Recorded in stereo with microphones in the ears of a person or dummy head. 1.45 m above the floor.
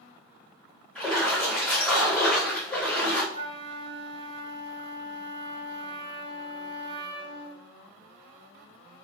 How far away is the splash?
About 1.0 m.